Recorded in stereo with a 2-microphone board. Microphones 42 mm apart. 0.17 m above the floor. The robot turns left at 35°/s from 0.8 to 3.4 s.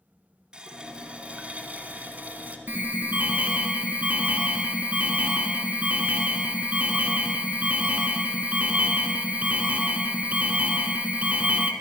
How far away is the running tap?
About 0.9 m.